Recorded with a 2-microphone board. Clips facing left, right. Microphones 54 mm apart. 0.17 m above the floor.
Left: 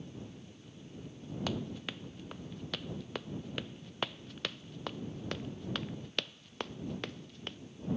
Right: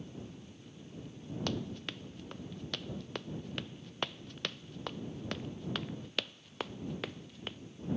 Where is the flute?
No flute in this recording.